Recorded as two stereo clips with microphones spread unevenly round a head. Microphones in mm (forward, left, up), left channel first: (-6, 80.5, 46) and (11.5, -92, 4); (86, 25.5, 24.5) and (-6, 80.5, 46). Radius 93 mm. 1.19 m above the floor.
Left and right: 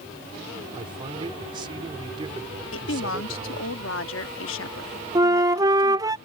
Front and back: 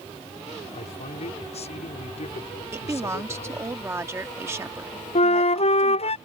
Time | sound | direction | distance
0.7 | a man speaking | 20° right | ?
2.7 | a woman speaking | 85° left | ?
5.2 | a flute | 10° right | ?